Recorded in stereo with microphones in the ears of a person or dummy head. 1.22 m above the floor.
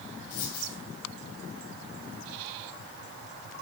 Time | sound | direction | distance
0.3 | a dropped coin | 65° left (ahead or behind) | 3 m